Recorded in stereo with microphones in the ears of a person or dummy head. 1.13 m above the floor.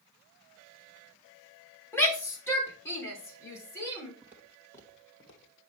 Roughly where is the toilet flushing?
No toilet flushing in this recording.